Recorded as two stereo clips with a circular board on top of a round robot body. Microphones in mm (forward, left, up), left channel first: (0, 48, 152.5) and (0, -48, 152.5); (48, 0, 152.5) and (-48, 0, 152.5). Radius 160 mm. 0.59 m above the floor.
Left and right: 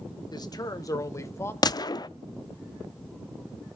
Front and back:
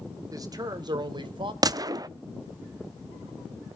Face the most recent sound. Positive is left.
turn(degrees=135)